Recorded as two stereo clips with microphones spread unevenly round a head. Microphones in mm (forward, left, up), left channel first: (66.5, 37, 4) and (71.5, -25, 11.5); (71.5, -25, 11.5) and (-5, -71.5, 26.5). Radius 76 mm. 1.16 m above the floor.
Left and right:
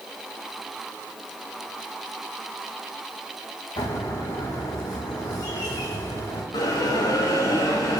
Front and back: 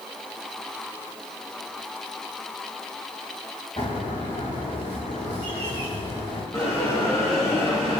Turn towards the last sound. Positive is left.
turn(degrees=105)